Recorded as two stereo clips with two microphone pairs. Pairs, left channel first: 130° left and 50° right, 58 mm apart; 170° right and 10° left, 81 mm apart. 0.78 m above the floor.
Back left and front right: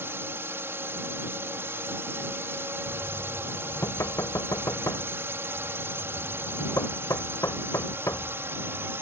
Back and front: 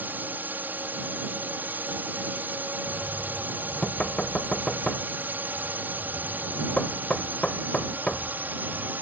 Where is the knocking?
115° left.